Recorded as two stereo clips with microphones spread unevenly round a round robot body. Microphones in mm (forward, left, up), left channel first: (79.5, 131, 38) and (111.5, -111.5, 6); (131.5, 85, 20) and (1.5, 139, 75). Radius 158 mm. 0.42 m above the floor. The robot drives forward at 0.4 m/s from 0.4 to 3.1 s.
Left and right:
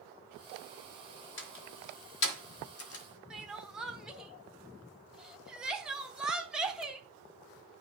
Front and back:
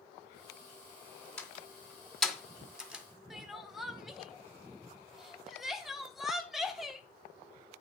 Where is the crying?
25° right, 1.1 m.